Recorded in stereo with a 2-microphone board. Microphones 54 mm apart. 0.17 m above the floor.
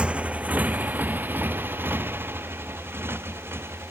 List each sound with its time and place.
0.0 s a motorcycle: 20° right (ahead or behind); by 3.9 s 45° right (ahead or behind)